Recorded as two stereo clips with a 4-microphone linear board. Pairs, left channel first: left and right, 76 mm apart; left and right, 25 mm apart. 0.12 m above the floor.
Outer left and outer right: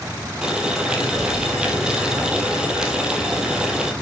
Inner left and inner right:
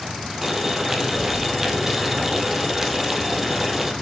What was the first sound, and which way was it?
Boiling, 10° right (ahead or behind).